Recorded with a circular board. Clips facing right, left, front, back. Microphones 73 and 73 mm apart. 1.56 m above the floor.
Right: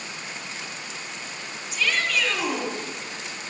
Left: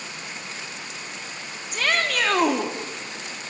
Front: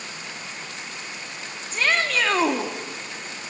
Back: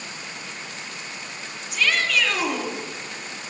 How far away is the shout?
About 3 m.